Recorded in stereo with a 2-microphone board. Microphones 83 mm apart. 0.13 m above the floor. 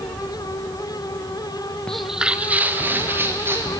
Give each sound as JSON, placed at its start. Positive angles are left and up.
{"t": 1.9, "sound": "footsteps", "side_deg": 10, "distance_m": 0.7}